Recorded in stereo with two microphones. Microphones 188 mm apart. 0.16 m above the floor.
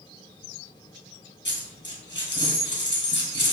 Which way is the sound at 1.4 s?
75° left (ahead or behind).